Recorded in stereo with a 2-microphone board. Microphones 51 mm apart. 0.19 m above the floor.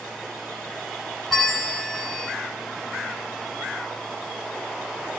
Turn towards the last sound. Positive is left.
turn(degrees=5)  # may be behind; listen again after turning